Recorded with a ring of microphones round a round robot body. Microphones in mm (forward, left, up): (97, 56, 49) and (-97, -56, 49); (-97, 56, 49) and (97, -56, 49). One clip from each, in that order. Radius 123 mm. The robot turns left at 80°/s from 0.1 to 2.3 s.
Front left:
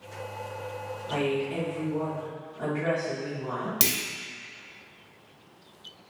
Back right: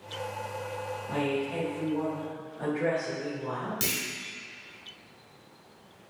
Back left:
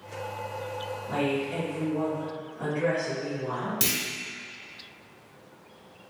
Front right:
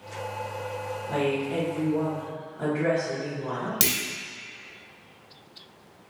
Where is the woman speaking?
50° left, 1.4 m; by 3.7 s 45° right, 1.4 m.